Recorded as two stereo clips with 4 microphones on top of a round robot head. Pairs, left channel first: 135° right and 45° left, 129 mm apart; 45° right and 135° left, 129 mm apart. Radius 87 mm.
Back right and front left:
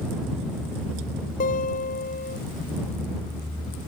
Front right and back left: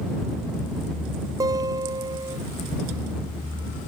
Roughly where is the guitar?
Behind.